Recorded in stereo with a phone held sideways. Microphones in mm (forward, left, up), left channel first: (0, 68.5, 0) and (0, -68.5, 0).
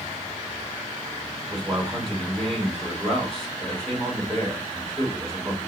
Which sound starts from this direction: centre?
A man speaking, at 1.5 s.